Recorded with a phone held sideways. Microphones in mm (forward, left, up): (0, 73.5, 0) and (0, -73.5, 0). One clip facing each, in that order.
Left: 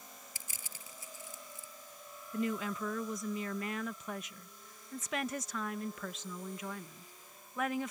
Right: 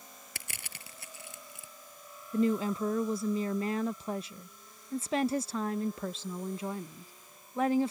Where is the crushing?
75° right (ahead or behind).